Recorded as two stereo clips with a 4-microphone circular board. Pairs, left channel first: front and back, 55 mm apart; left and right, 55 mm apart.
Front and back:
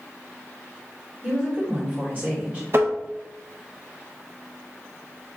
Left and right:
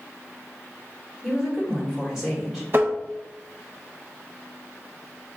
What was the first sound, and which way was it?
A woman speaking, 165° right.